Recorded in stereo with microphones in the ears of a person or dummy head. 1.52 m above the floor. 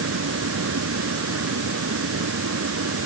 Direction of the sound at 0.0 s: 85° right.